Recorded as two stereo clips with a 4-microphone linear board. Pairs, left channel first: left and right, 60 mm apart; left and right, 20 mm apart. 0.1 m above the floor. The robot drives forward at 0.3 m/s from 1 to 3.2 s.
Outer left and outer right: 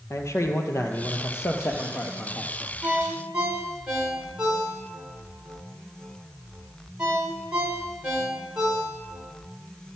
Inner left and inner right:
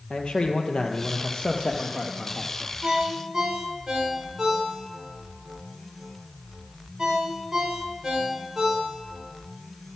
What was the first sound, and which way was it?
A man speaking, 55° left (ahead or behind).